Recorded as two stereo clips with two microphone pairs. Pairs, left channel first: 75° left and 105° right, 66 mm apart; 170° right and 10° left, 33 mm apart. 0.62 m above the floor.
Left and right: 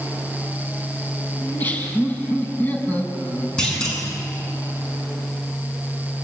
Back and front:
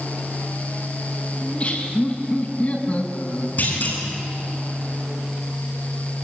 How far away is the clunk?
About 8 m.